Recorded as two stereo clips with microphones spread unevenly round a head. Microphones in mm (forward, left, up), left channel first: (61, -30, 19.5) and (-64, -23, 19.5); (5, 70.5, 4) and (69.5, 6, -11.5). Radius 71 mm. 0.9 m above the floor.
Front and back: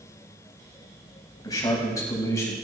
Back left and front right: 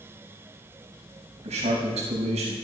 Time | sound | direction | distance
1.4 | a man speaking | 65° right | 5.5 m